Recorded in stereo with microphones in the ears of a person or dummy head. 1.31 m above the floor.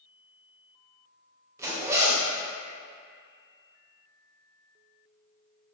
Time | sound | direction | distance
1.6 | a zipper | 15° right (ahead or behind) | 0.7 m